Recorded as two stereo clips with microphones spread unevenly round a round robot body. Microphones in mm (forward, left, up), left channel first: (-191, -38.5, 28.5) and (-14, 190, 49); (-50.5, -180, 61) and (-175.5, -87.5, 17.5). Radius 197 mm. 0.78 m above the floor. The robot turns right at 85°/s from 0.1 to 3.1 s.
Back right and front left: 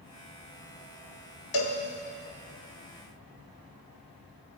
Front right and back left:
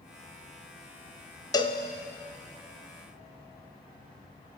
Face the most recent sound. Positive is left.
turn(degrees=30)